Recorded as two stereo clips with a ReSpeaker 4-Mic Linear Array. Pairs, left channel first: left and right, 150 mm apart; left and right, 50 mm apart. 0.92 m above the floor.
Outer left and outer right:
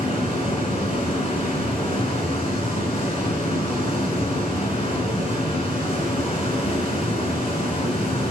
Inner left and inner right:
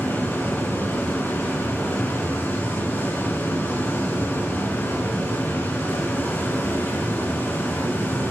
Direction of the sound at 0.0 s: 45° left (ahead or behind).